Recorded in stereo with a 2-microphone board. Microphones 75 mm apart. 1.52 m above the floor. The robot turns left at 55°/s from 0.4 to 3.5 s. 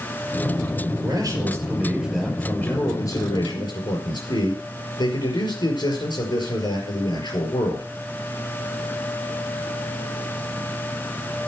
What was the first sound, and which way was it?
A man speaking, 120° right.